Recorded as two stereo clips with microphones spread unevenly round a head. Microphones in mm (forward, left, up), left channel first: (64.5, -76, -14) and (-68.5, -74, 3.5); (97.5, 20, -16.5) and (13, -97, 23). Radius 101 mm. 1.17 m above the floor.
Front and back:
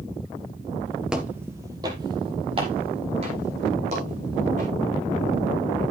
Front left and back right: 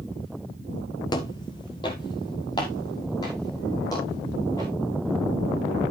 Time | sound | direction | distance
1.1 | footsteps | 120° left | 1.2 m